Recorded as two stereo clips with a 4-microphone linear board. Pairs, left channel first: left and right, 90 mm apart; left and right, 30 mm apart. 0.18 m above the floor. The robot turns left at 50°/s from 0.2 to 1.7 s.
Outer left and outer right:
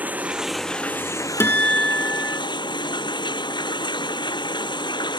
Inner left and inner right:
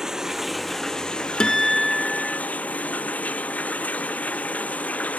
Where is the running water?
160° right; by 5.2 s 125° left.